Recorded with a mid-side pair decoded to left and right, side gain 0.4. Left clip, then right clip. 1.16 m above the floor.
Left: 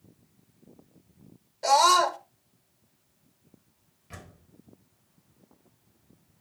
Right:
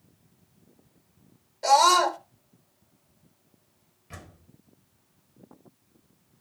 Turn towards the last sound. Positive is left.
turn(degrees=0)